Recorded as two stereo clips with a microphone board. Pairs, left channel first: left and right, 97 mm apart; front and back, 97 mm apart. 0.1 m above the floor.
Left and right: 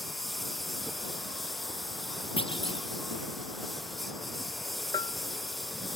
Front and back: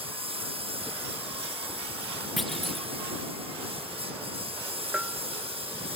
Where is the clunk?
90° left.